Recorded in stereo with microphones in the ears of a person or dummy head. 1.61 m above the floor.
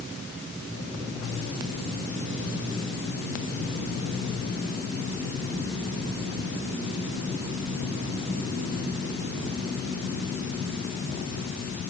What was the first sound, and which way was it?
Only background noise.